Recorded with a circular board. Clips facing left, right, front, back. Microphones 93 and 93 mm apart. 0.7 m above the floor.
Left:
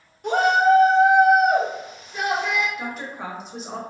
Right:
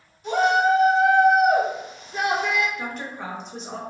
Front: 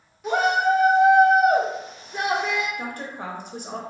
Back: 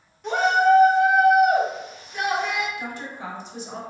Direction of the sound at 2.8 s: 5° left.